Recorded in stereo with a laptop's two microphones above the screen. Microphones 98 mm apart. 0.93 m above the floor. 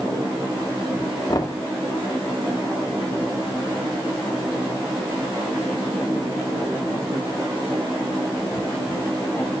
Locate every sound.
1.3 s knocking: 45° left (ahead or behind), 1.9 m